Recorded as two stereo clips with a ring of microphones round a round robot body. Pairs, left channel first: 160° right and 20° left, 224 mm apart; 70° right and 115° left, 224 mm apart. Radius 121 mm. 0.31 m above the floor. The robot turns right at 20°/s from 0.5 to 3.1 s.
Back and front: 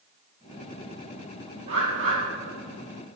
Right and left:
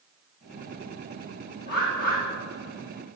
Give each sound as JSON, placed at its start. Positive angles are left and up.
{"t": 1.7, "sound": "a bird", "azimuth_deg": -20, "distance_m": 6.0}